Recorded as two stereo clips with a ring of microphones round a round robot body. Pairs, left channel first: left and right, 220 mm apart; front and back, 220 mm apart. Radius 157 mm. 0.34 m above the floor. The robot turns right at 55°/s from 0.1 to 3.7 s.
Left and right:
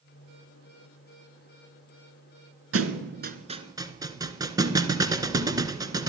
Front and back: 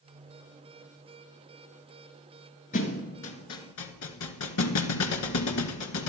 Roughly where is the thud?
Right.